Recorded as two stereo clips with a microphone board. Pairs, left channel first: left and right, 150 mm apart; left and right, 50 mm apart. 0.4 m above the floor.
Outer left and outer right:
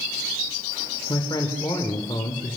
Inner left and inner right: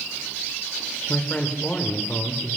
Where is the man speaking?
30° left (ahead or behind), 1.2 m.